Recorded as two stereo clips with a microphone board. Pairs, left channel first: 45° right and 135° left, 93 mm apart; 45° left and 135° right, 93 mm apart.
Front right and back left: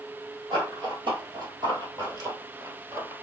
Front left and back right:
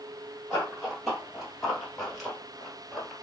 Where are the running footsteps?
135° left, 2.5 m; by 3.1 s 120° left, 1.4 m.